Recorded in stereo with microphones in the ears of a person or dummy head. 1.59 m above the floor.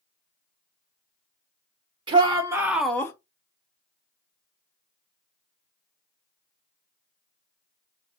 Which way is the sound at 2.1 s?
30° right (ahead or behind).